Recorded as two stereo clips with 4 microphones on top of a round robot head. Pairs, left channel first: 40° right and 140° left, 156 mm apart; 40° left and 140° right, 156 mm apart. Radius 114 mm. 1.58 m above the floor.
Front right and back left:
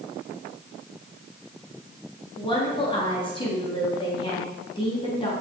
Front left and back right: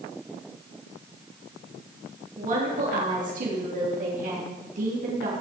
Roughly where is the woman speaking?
Right.